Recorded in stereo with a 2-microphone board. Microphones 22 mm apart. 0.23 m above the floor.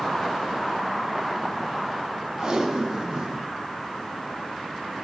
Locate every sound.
2.4 s tape being pulled: 35° right (ahead or behind), 0.8 m